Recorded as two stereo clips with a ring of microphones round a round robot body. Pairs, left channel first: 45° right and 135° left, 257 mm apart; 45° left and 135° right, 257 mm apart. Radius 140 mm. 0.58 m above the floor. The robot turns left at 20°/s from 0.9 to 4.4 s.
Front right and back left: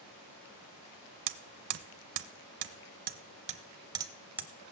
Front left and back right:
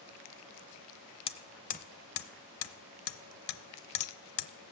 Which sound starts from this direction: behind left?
Hammering, at 1.3 s.